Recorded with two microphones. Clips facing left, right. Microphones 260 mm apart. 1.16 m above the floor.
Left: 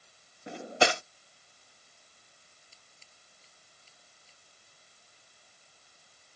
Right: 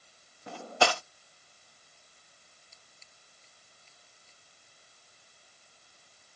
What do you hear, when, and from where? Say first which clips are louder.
0.5 s cutlery clinking: left 1 dB; 20° left (ahead or behind)
2.7 s scissors: right 1 dB; 35° left (ahead or behind)